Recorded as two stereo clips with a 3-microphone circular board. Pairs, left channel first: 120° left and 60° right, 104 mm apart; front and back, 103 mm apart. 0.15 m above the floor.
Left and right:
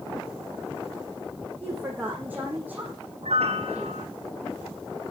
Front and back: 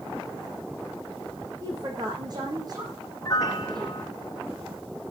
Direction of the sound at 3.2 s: 60° right.